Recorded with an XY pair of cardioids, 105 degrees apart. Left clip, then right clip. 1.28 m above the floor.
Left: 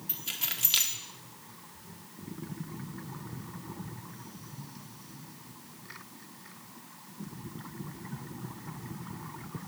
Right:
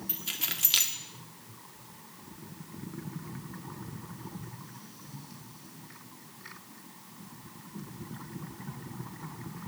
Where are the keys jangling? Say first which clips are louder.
Right 1 dB; 15° right, 1.0 m.